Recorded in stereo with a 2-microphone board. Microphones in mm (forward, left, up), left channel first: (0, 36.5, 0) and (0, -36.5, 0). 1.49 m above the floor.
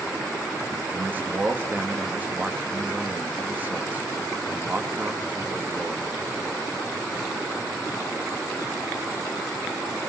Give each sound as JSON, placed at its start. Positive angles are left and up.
{"t": 0.9, "sound": "a man speaking", "side_deg": -25, "distance_m": 3.0}